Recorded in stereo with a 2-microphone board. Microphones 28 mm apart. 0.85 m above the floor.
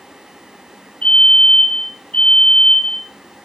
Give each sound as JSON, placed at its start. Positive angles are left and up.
{"t": 1.0, "sound": "a fire alarm", "side_deg": 45, "distance_m": 4.5}